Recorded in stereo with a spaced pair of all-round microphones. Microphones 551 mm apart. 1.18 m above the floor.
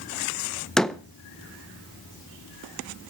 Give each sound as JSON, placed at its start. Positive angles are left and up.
{"t": 0.8, "sound": "a door slam", "side_deg": 0, "distance_m": 0.6}